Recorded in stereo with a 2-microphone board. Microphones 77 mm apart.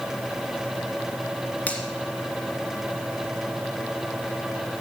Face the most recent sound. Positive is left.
turn(degrees=20)  # may be behind; listen again after turning